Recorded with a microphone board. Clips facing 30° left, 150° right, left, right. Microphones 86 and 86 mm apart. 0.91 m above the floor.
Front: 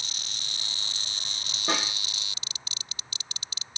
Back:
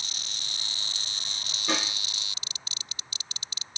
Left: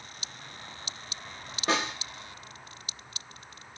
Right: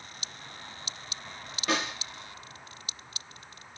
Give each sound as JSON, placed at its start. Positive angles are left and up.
{"t": 1.7, "sound": "a snare drum", "azimuth_deg": 45, "distance_m": 0.9}